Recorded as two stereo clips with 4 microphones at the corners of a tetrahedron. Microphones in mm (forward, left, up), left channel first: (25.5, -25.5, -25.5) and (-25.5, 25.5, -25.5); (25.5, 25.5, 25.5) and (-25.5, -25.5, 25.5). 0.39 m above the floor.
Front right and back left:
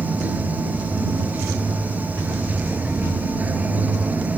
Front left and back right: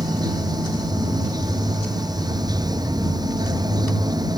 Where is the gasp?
I don't hear a gasp.